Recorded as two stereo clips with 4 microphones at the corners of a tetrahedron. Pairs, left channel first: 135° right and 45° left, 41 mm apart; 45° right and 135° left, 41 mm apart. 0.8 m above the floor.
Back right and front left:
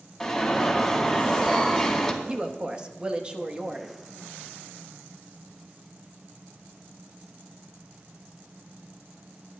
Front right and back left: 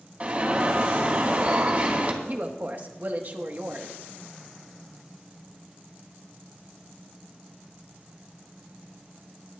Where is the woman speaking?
105° left, 1.2 m.